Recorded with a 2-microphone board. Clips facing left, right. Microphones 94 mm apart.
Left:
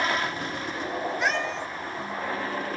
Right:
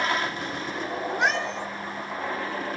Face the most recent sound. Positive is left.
turn(degrees=-70)  # may be behind; listen again after turning